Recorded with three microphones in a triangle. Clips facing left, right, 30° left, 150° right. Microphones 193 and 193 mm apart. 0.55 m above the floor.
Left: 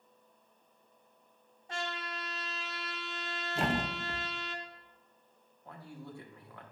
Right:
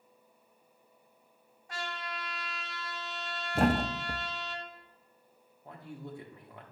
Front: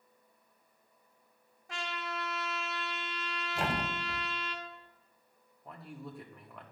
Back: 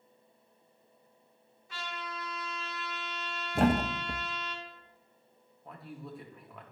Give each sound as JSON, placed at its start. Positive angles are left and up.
{"t": 1.7, "sound": "a trumpet", "azimuth_deg": 25, "distance_m": 1.4}
{"t": 3.5, "sound": "a thud", "azimuth_deg": -120, "distance_m": 0.5}
{"t": 5.7, "sound": "a man speaking", "azimuth_deg": -65, "distance_m": 1.1}